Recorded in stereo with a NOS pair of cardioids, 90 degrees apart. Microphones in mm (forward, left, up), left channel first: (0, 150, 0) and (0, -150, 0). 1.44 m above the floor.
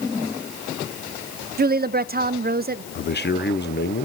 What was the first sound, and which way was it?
A woman speaking, 30° right.